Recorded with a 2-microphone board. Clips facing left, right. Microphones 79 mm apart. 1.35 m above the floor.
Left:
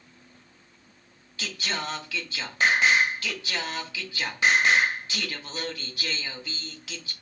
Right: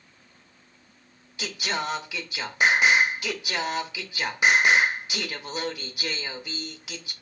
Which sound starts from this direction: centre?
Singing, at 1.4 s.